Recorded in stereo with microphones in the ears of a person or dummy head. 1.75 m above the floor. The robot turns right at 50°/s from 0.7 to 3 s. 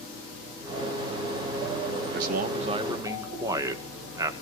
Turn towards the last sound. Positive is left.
turn(degrees=-15)